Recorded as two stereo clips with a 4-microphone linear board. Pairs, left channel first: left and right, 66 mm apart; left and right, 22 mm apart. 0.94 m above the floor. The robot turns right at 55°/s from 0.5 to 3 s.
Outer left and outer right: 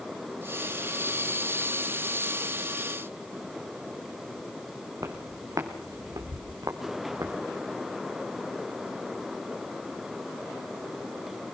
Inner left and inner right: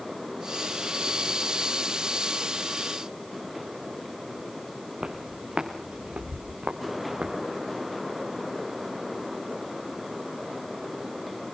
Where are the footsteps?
60° right (ahead or behind), 3.5 m; by 7.3 s 75° right (ahead or behind), 4 m.